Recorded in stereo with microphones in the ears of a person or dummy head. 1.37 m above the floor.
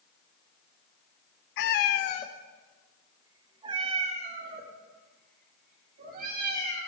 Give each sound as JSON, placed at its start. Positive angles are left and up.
{"t": 1.6, "sound": "a cat meowing", "side_deg": 50, "distance_m": 0.8}